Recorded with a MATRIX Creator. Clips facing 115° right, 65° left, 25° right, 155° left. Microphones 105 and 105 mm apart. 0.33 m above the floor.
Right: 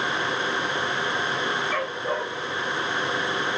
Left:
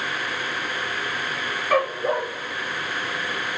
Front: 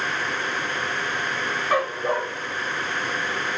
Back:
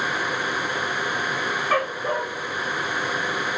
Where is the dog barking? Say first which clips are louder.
Left 6 dB, front 2 dB; 50° left, 3.5 m; by 3.6 s 45° left, 6 m.